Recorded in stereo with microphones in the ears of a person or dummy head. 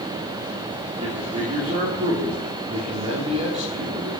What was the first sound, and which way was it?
A man speaking, 40° right (ahead or behind).